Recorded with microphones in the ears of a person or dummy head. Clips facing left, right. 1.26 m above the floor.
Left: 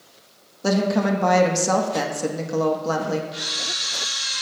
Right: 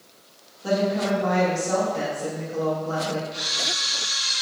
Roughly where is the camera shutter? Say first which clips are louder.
Right 1 dB; centre.